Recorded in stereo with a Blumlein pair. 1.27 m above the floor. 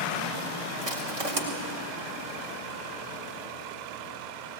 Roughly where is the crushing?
Ahead right.